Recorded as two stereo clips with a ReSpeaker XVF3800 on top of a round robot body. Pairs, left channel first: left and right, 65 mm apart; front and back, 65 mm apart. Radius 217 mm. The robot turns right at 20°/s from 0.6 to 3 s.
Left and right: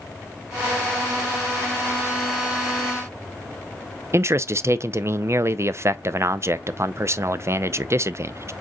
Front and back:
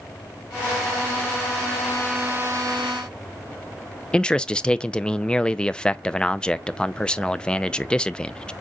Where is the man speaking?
70° right, 0.6 m.